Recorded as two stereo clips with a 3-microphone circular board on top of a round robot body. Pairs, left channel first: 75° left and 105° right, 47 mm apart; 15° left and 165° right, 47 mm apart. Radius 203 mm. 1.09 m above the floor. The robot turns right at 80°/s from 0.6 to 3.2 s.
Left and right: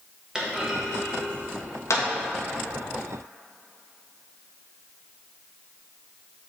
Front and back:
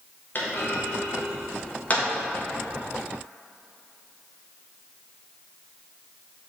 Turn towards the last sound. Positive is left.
turn(degrees=175)